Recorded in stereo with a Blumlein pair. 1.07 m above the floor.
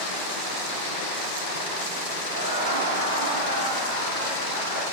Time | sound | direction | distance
2.3 | laughter | 60° right | 0.8 m